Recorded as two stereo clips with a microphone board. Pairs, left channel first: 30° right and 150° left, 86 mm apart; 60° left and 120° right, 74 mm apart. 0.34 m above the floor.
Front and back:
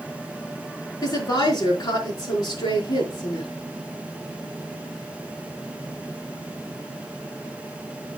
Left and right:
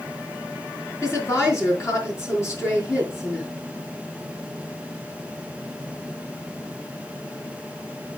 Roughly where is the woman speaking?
Ahead.